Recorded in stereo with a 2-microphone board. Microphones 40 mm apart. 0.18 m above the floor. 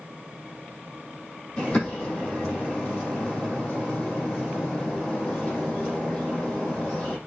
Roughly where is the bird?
Left.